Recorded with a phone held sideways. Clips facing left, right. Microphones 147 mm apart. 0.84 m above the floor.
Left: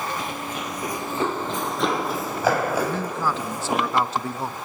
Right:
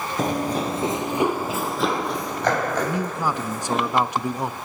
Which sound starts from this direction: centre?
A man speaking, at 2.8 s.